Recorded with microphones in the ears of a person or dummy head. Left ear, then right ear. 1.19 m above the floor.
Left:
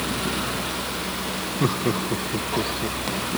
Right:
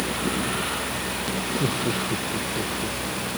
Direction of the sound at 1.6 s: 50° left (ahead or behind).